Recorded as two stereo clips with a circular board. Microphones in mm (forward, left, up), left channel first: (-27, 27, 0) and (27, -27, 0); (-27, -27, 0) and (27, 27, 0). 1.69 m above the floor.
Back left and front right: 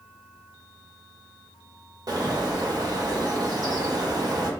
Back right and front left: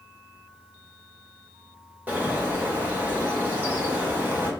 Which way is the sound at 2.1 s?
20° right.